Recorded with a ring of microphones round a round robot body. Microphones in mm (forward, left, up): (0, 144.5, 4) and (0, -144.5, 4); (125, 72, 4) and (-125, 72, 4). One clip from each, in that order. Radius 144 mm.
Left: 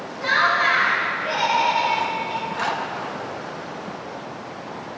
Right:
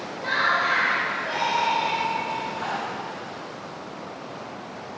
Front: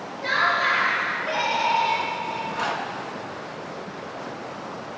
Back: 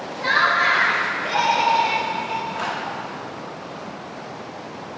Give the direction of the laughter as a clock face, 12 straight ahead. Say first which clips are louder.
Left 4 dB, back 4 dB; 7 o'clock.